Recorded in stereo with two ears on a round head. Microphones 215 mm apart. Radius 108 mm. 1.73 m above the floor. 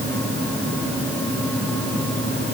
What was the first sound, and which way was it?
Only background noise.